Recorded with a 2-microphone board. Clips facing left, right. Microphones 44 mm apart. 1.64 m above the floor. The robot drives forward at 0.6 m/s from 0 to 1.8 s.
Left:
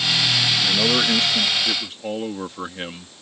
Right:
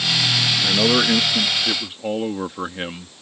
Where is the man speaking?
15° right (ahead or behind); by 3.1 s 10° right (ahead or behind).